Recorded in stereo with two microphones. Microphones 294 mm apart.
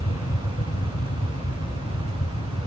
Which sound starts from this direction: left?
An aircraft, at 0.0 s.